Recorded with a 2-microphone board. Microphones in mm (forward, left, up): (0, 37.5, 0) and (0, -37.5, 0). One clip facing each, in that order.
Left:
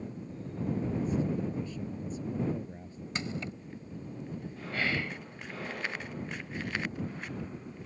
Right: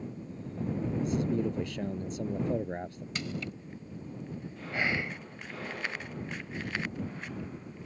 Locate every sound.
1.0 s a man speaking: 75° right (ahead or behind)
3.1 s crushing: 25° left (ahead or behind)
4.7 s whispering: 20° right (ahead or behind)